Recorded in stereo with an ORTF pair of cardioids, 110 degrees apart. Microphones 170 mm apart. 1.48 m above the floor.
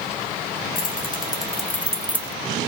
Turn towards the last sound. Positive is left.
turn(degrees=-30)